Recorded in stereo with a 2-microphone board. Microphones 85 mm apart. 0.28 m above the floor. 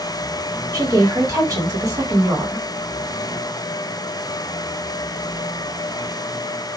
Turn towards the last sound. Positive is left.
turn(degrees=-40)  # may be behind; listen again after turning